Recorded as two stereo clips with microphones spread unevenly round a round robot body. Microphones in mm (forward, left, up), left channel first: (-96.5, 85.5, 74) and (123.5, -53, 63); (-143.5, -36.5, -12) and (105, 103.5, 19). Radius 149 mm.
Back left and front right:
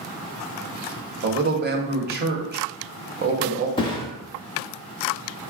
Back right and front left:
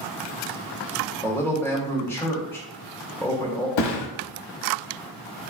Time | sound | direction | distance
1.2 | a man speaking | 75° right | 0.8 m
3.8 | a thud | 140° right | 0.6 m